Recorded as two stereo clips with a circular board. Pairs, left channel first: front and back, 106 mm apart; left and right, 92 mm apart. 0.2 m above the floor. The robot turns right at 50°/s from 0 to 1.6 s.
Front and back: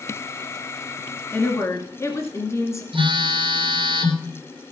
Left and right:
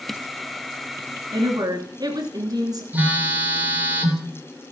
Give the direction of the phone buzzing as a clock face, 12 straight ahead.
5 o'clock.